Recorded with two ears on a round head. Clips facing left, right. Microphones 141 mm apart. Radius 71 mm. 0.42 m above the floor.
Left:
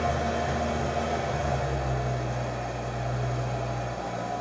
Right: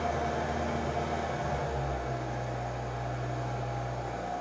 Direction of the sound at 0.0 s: 65° left (ahead or behind).